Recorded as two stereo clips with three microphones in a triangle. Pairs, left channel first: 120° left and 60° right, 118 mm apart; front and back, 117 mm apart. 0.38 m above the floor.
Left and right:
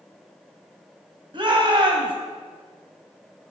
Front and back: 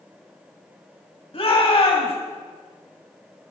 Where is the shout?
25° right, 2 m.